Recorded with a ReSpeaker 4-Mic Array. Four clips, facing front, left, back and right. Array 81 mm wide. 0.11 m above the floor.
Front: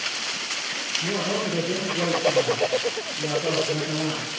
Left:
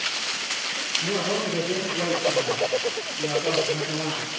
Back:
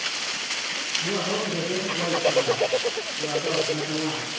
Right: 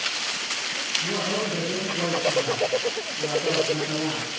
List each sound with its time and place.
1.0 s a man speaking: 50° left, 2.5 m; by 4.4 s 5° right, 5 m